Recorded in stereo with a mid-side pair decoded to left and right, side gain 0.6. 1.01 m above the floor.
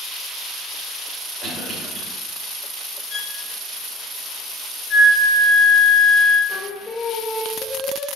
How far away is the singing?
About 1.3 m.